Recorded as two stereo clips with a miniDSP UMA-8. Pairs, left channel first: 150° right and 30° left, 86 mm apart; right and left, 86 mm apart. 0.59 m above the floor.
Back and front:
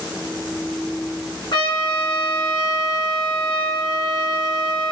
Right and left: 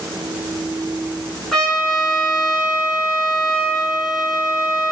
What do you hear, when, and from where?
1.5 s a trumpet: 175° right, 4.5 m